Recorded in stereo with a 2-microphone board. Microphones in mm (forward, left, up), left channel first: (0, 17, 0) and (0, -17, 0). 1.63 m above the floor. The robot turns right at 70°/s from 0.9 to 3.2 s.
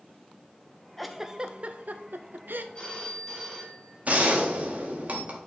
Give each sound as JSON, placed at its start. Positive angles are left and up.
{"t": 1.0, "sound": "a giggle", "side_deg": 5, "distance_m": 0.6}
{"t": 2.8, "sound": "a phone ringing", "azimuth_deg": 150, "distance_m": 2.0}
{"t": 4.0, "sound": "a gunshot", "side_deg": -50, "distance_m": 1.8}